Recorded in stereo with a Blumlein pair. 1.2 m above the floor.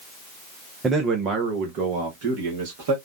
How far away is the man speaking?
About 0.6 m.